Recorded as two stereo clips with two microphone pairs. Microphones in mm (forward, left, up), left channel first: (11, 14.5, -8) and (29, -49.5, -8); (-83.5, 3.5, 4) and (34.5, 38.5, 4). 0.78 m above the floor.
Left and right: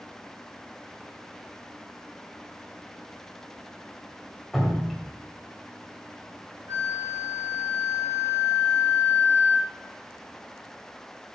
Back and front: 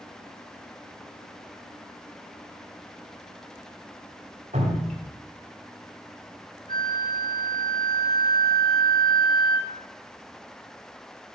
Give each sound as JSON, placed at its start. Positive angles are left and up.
{"t": 4.5, "sound": "dripping", "azimuth_deg": 15, "distance_m": 2.5}
{"t": 6.7, "sound": "a flute", "azimuth_deg": -115, "distance_m": 1.6}